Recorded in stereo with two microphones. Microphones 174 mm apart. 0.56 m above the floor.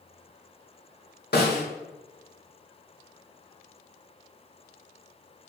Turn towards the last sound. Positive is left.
turn(degrees=70)  # may be behind; listen again after turning